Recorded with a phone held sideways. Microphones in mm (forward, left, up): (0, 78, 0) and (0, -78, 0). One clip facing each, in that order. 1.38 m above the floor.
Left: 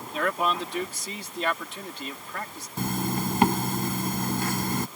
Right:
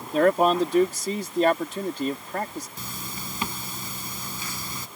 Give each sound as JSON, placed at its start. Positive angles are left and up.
{"t": 0.1, "sound": "a man speaking", "side_deg": -45}
{"t": 2.8, "sound": "a zipper", "side_deg": 65}